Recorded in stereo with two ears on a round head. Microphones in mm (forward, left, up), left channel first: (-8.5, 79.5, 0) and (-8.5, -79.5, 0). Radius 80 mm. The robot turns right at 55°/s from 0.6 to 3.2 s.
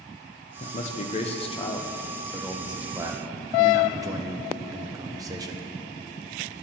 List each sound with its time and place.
0.6 s a man speaking: 70° left, 0.7 m; by 5.7 s 145° right, 0.7 m